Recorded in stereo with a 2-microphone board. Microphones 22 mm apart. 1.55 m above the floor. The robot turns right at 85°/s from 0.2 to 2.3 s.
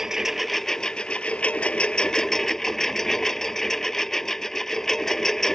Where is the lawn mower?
25° right; by 5.5 s 155° left.